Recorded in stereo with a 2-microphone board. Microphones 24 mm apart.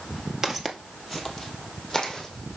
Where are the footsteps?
15° right (ahead or behind), 1.2 m; by 2.6 s 15° left (ahead or behind), 2.5 m.